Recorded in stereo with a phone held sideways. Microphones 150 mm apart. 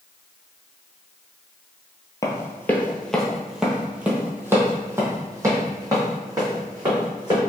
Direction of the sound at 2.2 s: 20° left (ahead or behind).